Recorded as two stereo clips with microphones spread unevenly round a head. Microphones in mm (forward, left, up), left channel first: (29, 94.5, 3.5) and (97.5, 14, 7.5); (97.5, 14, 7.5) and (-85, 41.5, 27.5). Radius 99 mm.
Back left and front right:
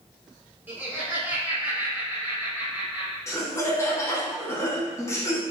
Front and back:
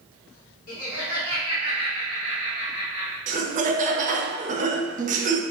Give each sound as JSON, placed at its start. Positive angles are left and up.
{"t": 0.7, "sound": "laughter", "azimuth_deg": 25, "distance_m": 1.2}
{"t": 3.3, "sound": "laughter", "azimuth_deg": 170, "distance_m": 0.6}